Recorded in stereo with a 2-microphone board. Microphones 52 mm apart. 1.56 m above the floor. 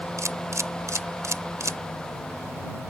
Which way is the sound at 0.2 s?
70° right (ahead or behind).